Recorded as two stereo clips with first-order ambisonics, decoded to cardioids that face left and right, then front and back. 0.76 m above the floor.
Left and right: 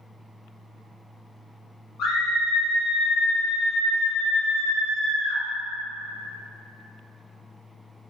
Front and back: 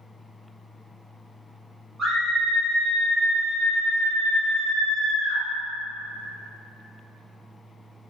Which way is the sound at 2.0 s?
110° left.